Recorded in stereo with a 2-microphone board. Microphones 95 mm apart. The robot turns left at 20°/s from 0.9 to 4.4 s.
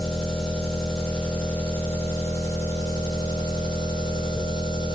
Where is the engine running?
Straight behind, 1.4 m; by 5.0 s 110° left, 1.4 m.